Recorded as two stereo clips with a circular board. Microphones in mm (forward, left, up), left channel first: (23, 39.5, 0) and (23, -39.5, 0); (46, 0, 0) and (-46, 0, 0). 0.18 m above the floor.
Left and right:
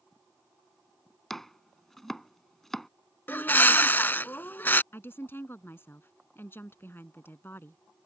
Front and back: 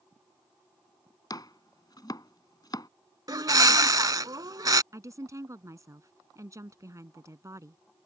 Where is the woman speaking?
140° left.